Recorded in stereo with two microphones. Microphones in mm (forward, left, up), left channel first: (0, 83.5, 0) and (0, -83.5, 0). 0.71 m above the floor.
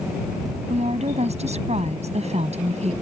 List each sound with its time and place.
0.7 s a woman speaking: 40° right (ahead or behind)